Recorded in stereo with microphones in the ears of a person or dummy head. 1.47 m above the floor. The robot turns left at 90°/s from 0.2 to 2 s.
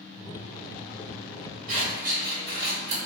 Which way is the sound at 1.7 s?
45° right (ahead or behind).